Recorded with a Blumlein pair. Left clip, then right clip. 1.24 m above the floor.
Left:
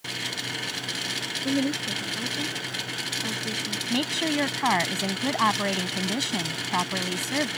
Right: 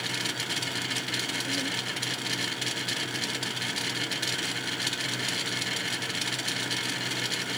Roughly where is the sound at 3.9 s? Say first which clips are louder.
Left 4 dB; ahead left.